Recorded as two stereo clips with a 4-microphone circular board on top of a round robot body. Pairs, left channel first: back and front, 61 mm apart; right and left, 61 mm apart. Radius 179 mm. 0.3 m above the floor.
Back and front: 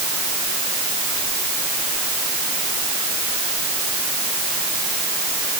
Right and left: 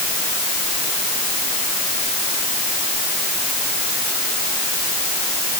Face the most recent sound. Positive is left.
No sound to turn to.